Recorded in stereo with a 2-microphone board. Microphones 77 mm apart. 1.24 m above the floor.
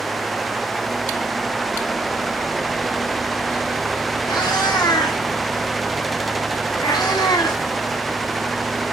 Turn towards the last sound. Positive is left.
turn(degrees=70)  # may be behind; listen again after turning